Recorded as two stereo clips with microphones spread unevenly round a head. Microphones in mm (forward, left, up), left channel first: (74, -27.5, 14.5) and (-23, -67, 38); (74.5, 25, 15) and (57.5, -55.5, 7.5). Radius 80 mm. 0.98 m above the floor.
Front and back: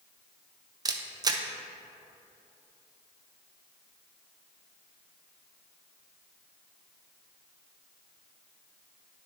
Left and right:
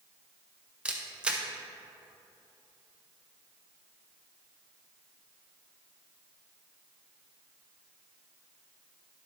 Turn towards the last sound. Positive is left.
turn(degrees=-150)